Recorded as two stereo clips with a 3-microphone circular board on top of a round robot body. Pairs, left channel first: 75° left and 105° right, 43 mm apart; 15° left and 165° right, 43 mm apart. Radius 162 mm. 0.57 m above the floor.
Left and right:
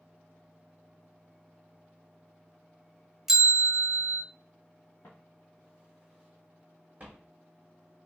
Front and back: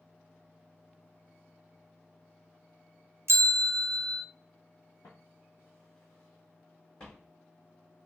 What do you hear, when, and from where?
3.3 s a bell: 170° left, 0.5 m
5.0 s footsteps: 30° left, 0.8 m; by 7.3 s 60° right, 1.3 m